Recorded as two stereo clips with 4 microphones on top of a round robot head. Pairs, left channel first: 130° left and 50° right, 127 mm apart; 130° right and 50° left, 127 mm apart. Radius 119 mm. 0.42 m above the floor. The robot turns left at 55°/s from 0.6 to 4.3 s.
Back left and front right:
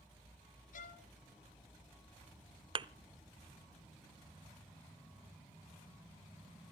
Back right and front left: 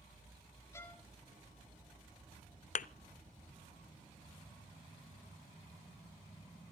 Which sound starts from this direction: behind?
A violin, at 0.7 s.